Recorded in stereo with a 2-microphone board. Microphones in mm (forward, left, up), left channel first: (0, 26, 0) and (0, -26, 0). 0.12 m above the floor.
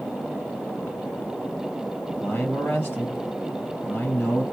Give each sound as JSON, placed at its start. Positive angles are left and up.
{"t": 2.1, "sound": "a man speaking", "side_deg": 40, "distance_m": 3.0}